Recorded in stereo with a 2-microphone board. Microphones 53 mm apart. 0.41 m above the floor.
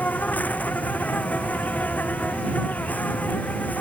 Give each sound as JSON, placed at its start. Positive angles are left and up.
{"t": 0.0, "sound": "an insect", "side_deg": 30}